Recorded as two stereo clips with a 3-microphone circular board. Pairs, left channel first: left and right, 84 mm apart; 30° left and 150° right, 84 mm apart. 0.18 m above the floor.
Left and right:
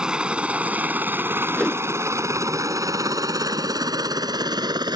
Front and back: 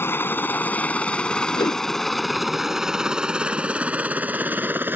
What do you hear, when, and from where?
0.0 s a helicopter: 15° right; by 5.0 s 90° right
1.5 s a whoosh: 10° left